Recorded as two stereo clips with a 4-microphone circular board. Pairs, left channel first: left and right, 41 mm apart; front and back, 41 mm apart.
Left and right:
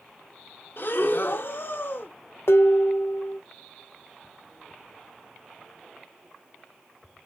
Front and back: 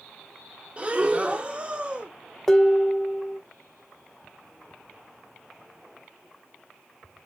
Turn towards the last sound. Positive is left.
turn(degrees=80)